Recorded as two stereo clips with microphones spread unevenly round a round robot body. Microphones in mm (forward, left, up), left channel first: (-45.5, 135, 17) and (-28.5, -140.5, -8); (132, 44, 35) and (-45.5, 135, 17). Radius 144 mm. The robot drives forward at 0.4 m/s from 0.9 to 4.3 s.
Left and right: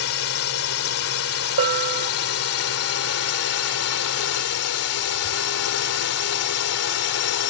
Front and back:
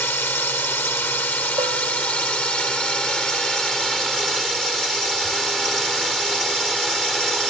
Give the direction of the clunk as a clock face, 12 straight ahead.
No clunk in this recording.